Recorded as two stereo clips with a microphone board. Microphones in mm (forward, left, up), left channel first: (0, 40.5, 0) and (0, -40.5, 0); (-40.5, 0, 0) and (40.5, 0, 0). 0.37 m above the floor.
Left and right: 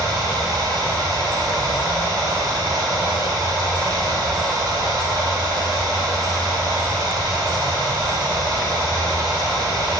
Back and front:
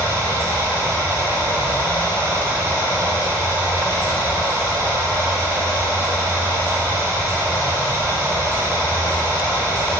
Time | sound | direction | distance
0.0 | running water | 55° right | 0.9 m